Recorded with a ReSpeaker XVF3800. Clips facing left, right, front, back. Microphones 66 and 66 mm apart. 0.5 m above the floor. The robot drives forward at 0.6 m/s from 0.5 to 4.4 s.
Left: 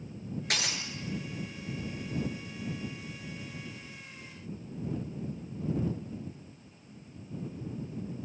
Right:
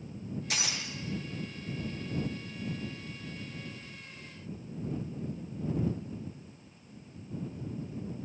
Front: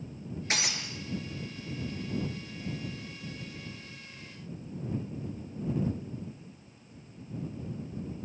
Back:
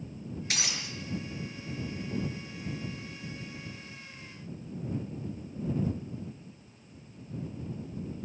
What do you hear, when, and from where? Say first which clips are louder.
0.5 s breaking glass: left 3 dB, front 4 dB; 55° left, 5.5 m; by 0.9 s 60° left, 5.5 m